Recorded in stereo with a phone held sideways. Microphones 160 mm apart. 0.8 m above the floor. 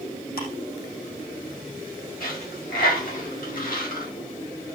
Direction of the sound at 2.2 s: 70° left (ahead or behind).